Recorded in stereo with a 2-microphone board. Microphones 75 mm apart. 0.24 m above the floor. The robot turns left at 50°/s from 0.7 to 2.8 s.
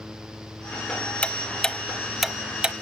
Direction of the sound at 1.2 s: 15° left (ahead or behind).